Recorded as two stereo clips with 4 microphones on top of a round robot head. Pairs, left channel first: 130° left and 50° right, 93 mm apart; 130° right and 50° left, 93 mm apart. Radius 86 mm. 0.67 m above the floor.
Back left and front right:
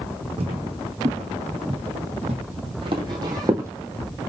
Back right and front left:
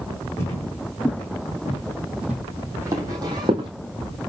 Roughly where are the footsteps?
Ahead right.